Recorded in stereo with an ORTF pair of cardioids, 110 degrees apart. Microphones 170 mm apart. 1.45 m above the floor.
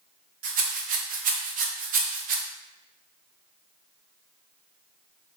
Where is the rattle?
55° right, 0.7 m.